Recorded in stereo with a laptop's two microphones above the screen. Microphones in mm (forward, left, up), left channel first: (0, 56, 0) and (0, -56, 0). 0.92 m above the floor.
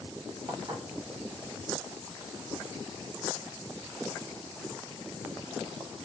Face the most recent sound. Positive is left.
turn(degrees=-35)  # may be behind; listen again after turning